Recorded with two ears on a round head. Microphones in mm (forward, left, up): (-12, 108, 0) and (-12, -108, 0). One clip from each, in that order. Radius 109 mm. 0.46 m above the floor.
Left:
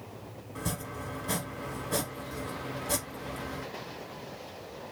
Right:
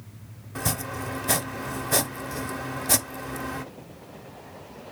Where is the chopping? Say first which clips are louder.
Right 7 dB; 25° right (ahead or behind), 0.5 m.